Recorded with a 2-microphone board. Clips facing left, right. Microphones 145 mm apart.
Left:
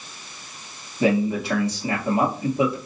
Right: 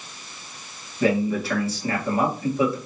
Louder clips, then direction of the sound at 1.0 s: Left 1 dB; 20° left (ahead or behind).